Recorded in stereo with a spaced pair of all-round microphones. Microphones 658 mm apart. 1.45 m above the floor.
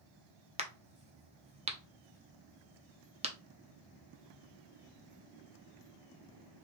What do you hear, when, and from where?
0.6 s a crack: 10° right (ahead or behind), 0.7 m